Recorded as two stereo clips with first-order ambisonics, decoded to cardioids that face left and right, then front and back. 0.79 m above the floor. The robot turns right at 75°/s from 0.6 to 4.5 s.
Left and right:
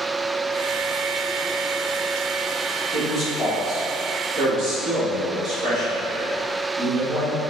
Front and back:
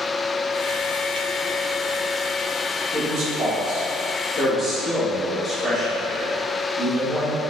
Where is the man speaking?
160° left, 1.4 m; by 7.4 s 85° right, 1.4 m.